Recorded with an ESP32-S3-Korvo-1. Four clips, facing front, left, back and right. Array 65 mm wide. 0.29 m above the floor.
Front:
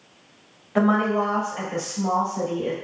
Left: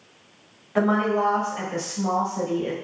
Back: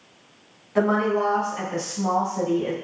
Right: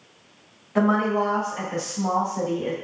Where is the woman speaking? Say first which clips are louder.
Even, front 1 dB; 20° left, 1.3 m; by 2.7 s 140° right, 1.2 m.